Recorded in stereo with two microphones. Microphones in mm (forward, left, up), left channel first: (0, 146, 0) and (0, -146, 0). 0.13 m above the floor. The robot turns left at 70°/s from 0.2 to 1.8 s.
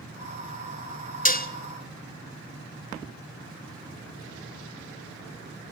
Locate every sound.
1.2 s dishes clattering: 30° left (ahead or behind), 0.8 m